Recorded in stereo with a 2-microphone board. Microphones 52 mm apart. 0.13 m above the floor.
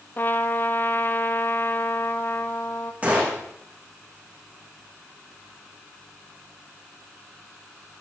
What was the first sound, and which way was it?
A trumpet, 40° left (ahead or behind).